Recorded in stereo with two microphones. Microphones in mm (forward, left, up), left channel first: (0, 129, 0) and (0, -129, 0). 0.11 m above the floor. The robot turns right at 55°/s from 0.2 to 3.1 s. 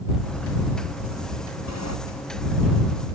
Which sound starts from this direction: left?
A sliding door, at 1.7 s.